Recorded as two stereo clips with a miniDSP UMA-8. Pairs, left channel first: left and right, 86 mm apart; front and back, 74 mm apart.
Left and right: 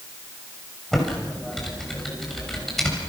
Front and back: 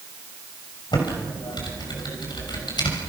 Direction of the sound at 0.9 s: 5° left.